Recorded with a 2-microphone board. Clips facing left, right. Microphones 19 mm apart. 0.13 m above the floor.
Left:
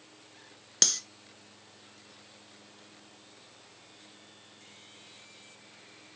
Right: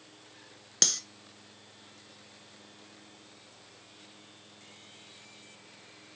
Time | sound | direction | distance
0.8 | cutlery clinking | centre (ahead or behind) | 0.8 m